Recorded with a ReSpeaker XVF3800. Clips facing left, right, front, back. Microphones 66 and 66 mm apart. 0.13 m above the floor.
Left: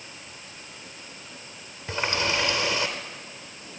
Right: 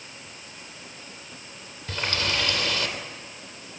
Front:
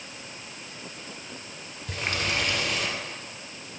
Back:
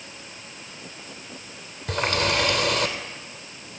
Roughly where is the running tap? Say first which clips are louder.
Left 2 dB, back 6 dB; behind left.